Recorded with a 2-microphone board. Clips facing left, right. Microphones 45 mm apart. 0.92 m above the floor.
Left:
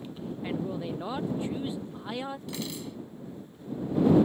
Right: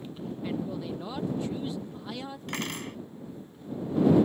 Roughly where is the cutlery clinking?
Right.